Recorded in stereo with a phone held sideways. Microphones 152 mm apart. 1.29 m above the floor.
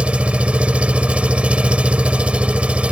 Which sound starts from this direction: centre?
An engine running, at 0.0 s.